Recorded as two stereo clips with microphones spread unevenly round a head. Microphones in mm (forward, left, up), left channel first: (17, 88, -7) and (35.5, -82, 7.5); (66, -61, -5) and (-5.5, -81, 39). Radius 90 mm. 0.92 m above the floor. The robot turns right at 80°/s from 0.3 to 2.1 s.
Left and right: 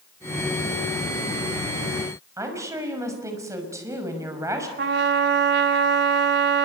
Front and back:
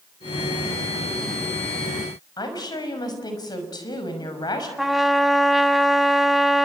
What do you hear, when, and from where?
2.4 s a woman speaking: 10° right, 6 m
4.8 s a trumpet: 95° right, 1.4 m